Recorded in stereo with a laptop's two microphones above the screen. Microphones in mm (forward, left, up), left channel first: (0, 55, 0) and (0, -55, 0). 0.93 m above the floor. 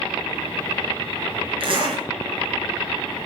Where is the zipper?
55° right (ahead or behind), 2.5 m.